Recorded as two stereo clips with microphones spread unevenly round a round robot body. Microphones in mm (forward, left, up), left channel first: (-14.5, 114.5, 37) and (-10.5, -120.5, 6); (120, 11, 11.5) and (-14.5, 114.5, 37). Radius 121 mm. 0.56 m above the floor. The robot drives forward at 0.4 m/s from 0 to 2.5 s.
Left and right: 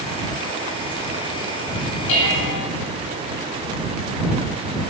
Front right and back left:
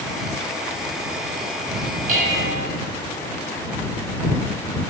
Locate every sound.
2.1 s dishes clattering: 100° left, 2 m; by 2.7 s 105° left, 2 m